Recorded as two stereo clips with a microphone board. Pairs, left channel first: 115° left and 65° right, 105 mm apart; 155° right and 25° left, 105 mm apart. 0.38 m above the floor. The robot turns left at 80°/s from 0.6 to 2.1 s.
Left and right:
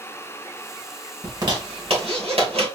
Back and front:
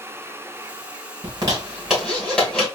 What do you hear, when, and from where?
1.2 s a zipper: 10° right, 2.5 m; by 2.6 s 75° right, 2.5 m